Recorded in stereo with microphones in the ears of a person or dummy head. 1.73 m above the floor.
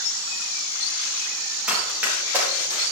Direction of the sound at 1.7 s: 5° right (ahead or behind).